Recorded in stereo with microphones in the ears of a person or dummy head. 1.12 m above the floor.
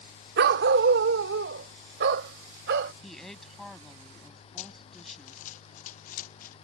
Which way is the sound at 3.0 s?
5° left (ahead or behind).